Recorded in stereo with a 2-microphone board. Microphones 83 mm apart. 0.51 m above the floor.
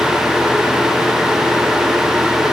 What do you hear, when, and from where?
Only background noise.